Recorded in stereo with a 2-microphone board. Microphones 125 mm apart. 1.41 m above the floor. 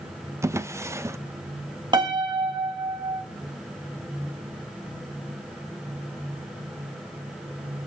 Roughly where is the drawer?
Right.